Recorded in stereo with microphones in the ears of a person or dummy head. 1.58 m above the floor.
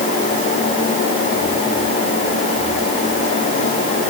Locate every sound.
Only background noise.